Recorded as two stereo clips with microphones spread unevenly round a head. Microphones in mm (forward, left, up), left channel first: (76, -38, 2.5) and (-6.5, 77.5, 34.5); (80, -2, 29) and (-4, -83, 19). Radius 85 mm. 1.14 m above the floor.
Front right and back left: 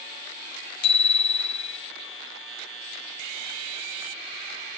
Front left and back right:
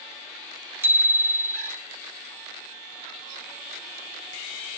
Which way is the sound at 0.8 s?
65° right.